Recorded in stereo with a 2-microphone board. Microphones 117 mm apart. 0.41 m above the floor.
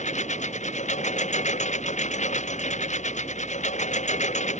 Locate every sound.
0.0 s a lawn mower: 70° left (ahead or behind)